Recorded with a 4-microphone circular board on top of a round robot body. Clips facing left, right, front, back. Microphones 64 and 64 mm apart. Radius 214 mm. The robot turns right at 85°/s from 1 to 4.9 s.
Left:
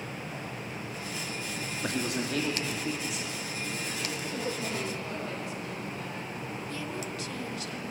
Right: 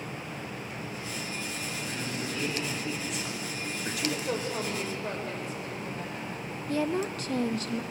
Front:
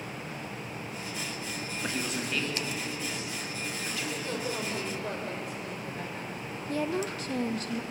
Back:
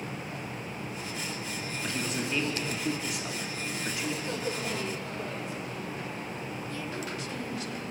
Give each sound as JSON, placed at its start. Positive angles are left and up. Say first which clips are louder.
{"t": 1.8, "sound": "a man speaking", "louder": "left 6 dB, even", "azimuth_deg": 65, "distance_m": 3.5}
{"t": 4.2, "sound": "a woman speaking", "louder": "right 2 dB, even", "azimuth_deg": -95, "distance_m": 5.5}
{"t": 6.7, "sound": "a woman speaking", "louder": "right 12 dB, front 10 dB", "azimuth_deg": -45, "distance_m": 1.0}